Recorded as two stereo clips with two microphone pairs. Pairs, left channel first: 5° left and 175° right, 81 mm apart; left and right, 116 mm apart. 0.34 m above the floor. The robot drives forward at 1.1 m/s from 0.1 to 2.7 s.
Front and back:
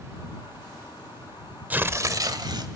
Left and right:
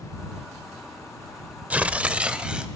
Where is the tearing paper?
145° right, 0.8 m; by 2.7 s 175° right, 1.5 m.